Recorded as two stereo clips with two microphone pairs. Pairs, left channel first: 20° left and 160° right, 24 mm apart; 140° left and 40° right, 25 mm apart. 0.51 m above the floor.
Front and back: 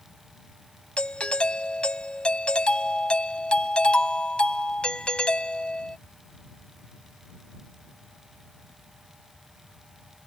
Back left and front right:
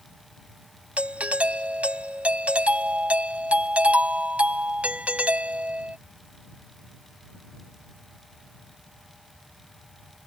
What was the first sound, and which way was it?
A doorbell, 20° right.